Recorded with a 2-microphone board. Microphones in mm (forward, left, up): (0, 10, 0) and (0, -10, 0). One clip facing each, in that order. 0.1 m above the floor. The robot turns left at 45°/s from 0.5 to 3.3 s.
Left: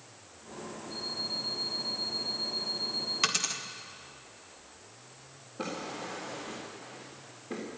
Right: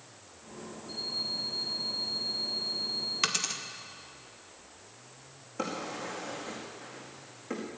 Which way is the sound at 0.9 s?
70° right.